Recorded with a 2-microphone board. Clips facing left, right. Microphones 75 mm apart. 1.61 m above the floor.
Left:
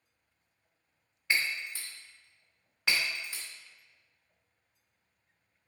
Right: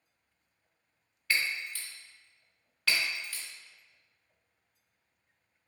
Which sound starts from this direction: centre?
Breaking glass, at 1.3 s.